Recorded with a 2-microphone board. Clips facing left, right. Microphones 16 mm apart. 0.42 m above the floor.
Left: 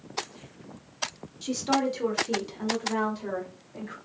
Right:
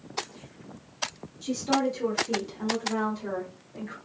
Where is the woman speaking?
30° left (ahead or behind), 0.9 m; by 4.0 s 15° left (ahead or behind), 1.6 m.